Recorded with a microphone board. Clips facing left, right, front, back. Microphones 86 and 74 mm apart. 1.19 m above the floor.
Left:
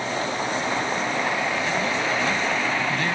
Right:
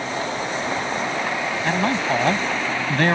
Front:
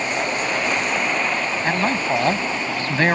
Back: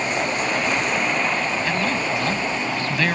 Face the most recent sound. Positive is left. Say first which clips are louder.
# right 3 dB, front 2 dB
turn(degrees=-55)